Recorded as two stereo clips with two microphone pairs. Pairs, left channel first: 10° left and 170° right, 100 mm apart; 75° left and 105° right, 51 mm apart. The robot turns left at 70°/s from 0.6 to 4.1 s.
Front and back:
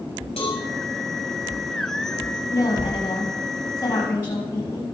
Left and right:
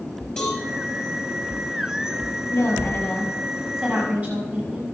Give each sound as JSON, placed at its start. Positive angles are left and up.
{"t": 0.4, "sound": "a cowbell", "azimuth_deg": 10, "distance_m": 4.5}
{"t": 2.5, "sound": "a woman speaking", "azimuth_deg": 55, "distance_m": 6.0}